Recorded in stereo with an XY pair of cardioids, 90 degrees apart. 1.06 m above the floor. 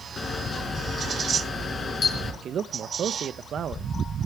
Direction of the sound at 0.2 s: 45° left.